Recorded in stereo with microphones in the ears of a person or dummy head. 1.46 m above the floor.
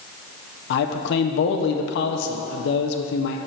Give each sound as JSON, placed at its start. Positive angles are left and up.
{"t": 0.7, "sound": "a man speaking", "side_deg": 65, "distance_m": 0.6}